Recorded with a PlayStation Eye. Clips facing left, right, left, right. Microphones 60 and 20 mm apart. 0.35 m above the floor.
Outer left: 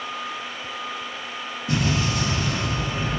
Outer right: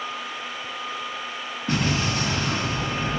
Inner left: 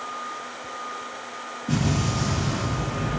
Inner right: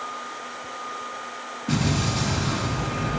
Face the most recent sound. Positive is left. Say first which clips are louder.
# even, inner right 1 dB
turn(degrees=-50)  # may be behind; listen again after turning